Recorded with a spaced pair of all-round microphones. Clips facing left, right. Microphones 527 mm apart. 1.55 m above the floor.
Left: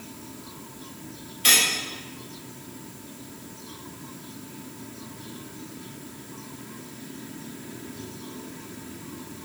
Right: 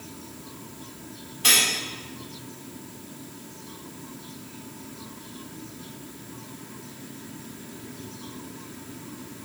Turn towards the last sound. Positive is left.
turn(degrees=-60)  # may be behind; listen again after turning